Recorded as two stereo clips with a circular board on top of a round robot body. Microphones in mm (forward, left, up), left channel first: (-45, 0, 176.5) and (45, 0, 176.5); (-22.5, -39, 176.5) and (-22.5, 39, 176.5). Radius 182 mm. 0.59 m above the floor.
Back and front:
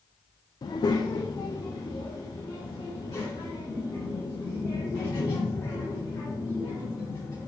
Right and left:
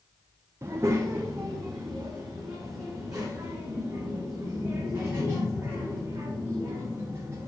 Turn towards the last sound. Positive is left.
turn(degrees=130)